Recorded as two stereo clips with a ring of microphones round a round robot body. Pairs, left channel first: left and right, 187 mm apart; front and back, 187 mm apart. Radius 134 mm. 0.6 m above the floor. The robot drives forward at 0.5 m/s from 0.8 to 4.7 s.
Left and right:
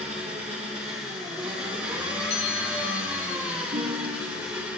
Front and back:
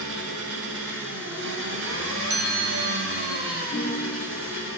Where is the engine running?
155° right, 3 m; by 4.8 s 165° right, 5 m.